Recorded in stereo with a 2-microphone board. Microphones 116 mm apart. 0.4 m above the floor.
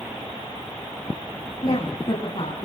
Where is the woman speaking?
55° left (ahead or behind), 3 m; by 2.6 s 50° left (ahead or behind), 4 m.